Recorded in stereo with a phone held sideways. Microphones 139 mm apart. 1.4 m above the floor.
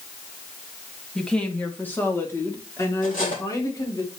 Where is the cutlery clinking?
70° left (ahead or behind), 3.5 m.